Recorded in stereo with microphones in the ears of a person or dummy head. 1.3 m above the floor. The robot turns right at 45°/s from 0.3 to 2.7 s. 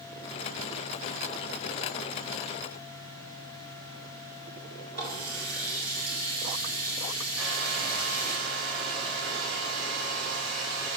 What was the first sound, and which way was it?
A running tap, 50° right (ahead or behind).